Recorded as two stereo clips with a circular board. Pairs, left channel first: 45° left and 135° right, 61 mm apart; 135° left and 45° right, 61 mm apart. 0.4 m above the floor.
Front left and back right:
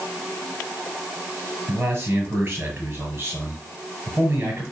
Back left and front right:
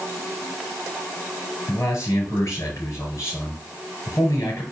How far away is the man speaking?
About 5.5 m.